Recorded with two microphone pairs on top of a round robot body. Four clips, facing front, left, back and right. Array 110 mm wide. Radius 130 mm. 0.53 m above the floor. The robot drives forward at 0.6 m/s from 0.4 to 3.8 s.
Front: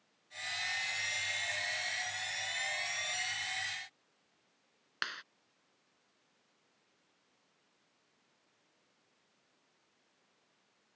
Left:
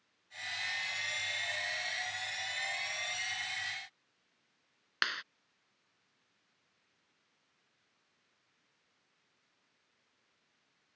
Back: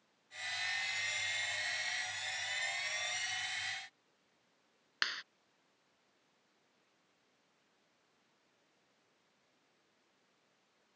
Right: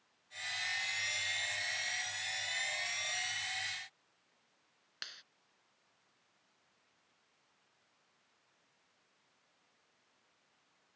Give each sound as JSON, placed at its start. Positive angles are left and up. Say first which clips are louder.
{"t": 5.0, "sound": "a clap", "louder": "left 18 dB, back 1 dB", "azimuth_deg": 80}